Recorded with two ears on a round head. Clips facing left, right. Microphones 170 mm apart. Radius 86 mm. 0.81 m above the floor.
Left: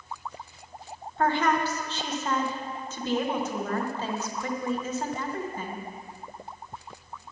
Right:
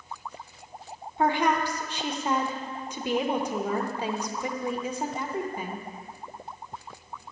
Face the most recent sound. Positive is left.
turn(degrees=-10)  # may be behind; listen again after turning